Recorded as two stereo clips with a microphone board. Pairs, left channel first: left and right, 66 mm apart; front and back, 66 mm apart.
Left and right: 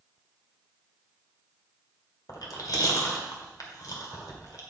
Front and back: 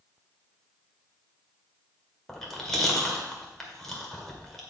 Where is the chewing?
85° left, 1.8 m.